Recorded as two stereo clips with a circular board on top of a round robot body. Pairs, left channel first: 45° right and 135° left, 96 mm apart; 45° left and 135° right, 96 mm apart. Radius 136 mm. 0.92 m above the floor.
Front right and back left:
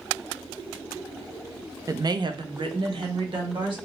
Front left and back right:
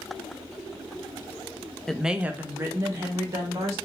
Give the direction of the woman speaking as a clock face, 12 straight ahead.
8 o'clock.